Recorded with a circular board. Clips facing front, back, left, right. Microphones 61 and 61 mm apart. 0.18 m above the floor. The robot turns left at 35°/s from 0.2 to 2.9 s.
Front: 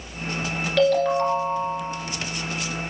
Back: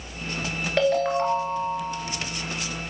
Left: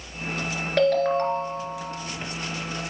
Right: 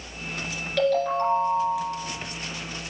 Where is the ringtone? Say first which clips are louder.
Front 3 dB, left 2 dB; 125° left, 1.9 m; by 1.9 s 85° left, 1.9 m.